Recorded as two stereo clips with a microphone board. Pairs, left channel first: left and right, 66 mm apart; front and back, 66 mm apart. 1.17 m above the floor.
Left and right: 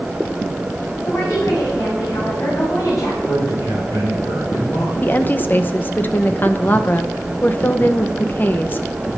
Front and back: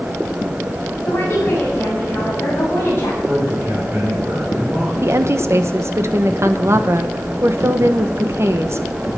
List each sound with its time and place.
1.1 s a woman speaking: 55° left, 9 m
3.3 s a man speaking: 115° left, 5 m
5.0 s a woman speaking: 145° left, 1.1 m